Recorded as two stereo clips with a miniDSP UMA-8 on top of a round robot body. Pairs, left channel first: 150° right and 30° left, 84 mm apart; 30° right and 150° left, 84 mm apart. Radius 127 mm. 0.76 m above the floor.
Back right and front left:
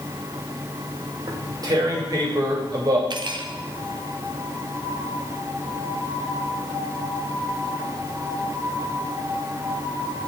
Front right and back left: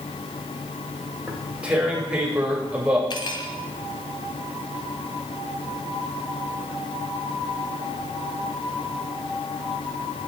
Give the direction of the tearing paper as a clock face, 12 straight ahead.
10 o'clock.